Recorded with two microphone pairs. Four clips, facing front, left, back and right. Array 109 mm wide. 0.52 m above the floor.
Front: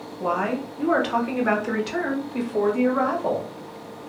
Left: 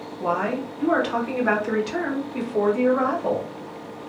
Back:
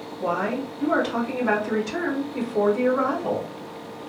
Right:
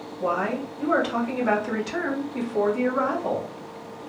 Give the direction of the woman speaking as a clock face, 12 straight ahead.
10 o'clock.